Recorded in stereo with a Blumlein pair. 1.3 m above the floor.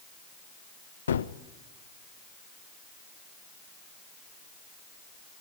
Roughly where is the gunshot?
Ahead left.